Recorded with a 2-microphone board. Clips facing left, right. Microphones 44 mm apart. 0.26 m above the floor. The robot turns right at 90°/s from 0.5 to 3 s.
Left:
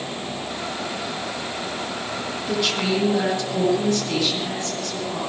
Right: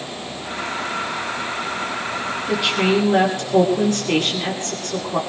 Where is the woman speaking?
Straight behind, 6.5 m; by 5.2 s 130° right, 6.5 m.